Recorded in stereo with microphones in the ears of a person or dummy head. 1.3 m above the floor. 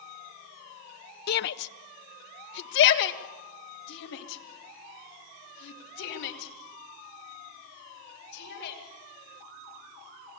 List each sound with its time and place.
1.3 s a shout: 50° left (ahead or behind), 0.7 m; by 8.8 s 60° left (ahead or behind), 6.5 m